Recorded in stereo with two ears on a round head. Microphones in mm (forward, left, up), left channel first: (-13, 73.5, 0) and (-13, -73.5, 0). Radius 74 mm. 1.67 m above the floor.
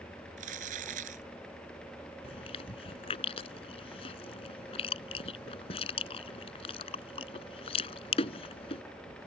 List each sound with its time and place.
0.4 s crumpling: 50° right (ahead or behind)
2.2 s chewing: 35° left (ahead or behind)